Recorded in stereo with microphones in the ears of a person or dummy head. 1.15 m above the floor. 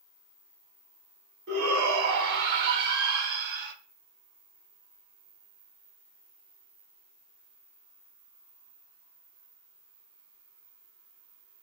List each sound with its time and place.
1.5 s a shout: 55° right (ahead or behind), 1.1 m